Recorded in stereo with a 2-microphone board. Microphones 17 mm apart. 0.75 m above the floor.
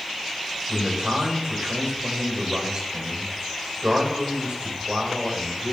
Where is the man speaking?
50° right (ahead or behind), 3 m.